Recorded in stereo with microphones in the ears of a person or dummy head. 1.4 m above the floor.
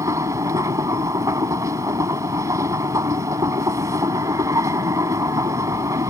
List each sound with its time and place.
0.0 s a machine running: 20° right (ahead or behind)